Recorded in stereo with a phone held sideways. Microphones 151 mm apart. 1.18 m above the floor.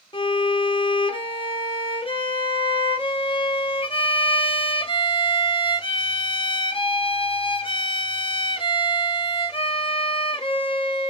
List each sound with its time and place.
0.1 s a violin: 35° left (ahead or behind), 0.8 m